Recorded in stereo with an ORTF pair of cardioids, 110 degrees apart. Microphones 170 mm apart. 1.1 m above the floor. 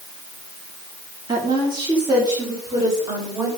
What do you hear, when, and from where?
1.3 s a woman speaking: 25° right, 3 m; by 3.5 s 20° right, 5.5 m